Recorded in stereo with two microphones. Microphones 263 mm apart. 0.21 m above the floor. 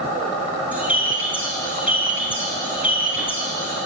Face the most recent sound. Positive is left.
turn(degrees=-5)  # may be behind; listen again after turning